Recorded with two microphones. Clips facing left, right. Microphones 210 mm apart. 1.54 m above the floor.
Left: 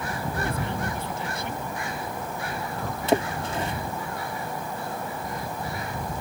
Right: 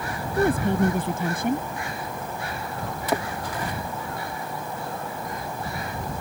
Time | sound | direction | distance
0.4 | a woman speaking | 50° right (ahead or behind) | ?
3.1 | a splash | 25° left (ahead or behind) | ?